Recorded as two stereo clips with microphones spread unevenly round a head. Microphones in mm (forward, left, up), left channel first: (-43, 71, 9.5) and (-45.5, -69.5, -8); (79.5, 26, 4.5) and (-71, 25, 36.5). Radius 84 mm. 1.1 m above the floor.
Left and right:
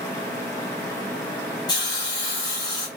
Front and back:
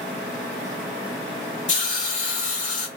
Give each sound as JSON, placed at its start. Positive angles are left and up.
{"t": 1.7, "sound": "a hiss", "azimuth_deg": 20, "distance_m": 2.0}